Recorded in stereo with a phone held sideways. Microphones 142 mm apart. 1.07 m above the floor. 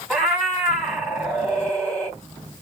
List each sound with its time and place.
0.1 s a cat meowing: centre (ahead or behind), 2.5 m